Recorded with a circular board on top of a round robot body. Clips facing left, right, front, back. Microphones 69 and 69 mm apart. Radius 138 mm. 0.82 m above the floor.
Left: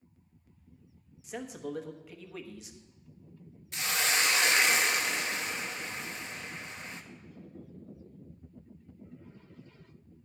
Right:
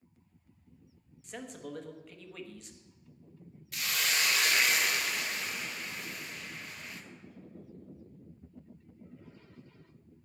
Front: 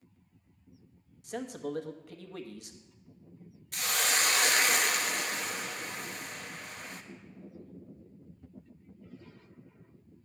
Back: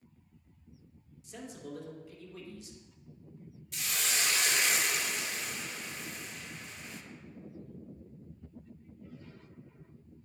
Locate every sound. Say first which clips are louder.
1.2 s a man speaking: left 4 dB, front 8 dB; 5° left, 1.2 m
3.7 s a hiss: left 3 dB, front 5 dB; 25° left, 0.9 m